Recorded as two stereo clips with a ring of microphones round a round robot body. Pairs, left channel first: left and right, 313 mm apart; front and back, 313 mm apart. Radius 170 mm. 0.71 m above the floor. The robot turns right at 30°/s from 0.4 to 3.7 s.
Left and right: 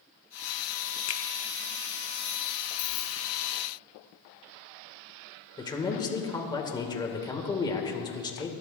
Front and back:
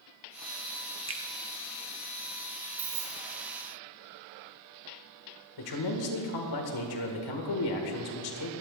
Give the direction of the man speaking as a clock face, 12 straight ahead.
12 o'clock.